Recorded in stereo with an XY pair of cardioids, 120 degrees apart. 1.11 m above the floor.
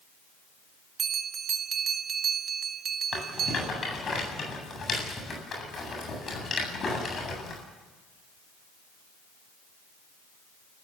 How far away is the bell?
About 1.9 m.